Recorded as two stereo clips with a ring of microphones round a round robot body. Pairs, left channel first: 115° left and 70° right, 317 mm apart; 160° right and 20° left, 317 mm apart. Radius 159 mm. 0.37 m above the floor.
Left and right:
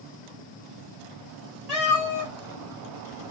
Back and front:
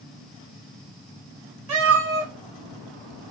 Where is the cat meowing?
20° left, 3.5 m; by 3.3 s 5° right, 2 m.